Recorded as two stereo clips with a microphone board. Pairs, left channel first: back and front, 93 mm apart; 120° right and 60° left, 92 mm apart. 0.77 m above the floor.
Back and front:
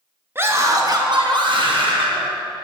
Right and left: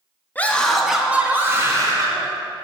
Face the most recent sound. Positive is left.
turn(degrees=15)